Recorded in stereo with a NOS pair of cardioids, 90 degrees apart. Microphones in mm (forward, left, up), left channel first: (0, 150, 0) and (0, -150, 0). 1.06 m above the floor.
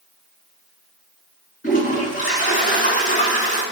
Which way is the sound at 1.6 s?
25° left.